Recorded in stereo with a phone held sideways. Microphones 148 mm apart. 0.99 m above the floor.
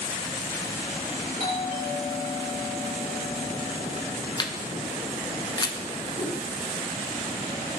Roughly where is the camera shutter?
Left.